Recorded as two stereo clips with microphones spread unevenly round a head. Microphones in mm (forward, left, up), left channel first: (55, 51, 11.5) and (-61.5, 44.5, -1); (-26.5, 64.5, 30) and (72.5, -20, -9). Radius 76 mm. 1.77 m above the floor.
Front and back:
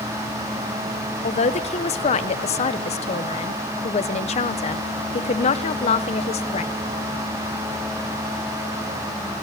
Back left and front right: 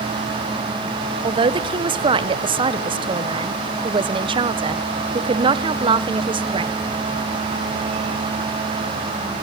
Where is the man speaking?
15° left, 1.1 m.